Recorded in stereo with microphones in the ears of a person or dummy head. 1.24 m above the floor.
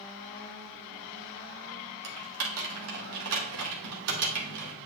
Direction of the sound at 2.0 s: 75° right (ahead or behind).